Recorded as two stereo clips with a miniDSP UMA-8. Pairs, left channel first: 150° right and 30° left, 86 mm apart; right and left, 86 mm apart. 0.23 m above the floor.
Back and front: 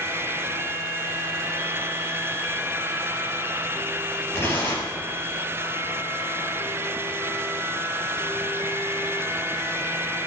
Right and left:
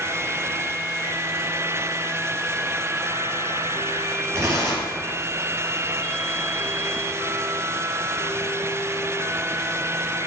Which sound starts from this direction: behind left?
Tearing paper, at 4.3 s.